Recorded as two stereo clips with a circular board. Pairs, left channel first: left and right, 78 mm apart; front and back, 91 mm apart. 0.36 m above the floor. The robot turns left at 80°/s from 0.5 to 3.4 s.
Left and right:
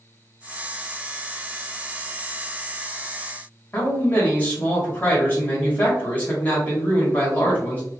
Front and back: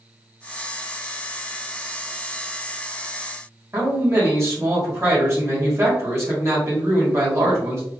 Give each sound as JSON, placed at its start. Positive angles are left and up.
{"t": 3.7, "sound": "a man speaking", "azimuth_deg": 145, "distance_m": 1.8}